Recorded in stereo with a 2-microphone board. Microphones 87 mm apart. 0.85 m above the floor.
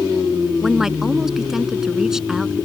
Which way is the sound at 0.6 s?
5° right (ahead or behind).